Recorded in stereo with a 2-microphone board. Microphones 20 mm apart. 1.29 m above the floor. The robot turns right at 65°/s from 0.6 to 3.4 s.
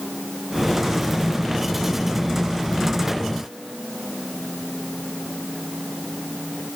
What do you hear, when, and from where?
Only background noise.